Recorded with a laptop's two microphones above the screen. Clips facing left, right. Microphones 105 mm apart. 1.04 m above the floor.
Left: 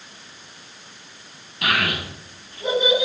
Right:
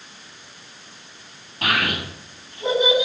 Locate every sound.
1.6 s a child speaking: 35° right (ahead or behind), 6.5 m; by 3.0 s 25° right (ahead or behind), 6.5 m